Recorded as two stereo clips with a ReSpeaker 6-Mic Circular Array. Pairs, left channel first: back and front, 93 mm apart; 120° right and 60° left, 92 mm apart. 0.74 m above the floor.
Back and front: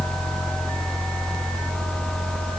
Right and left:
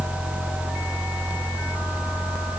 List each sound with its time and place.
Only background noise.